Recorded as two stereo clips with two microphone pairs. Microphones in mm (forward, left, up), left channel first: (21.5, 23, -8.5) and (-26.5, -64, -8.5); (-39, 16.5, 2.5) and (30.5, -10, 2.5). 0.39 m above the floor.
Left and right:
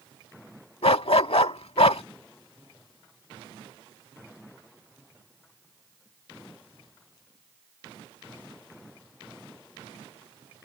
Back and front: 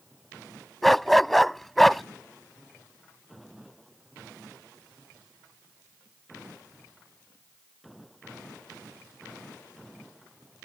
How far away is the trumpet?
I don't hear a trumpet.